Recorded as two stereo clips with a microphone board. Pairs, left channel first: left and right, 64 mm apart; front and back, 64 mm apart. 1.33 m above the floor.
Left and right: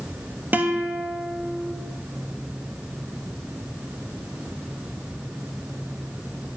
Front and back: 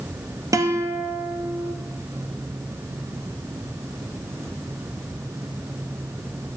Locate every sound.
0.5 s a guitar: 150° right, 0.7 m